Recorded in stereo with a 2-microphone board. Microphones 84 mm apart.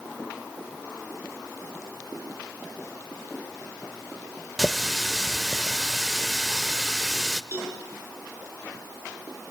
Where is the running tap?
5° right (ahead or behind), 0.8 m.